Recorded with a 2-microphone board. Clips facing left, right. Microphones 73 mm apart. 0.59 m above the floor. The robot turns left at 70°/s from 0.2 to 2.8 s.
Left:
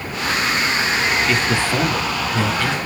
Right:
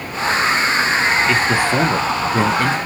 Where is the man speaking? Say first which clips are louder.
Right 3 dB; straight ahead, 0.7 m; by 2.8 s 105° right, 0.7 m.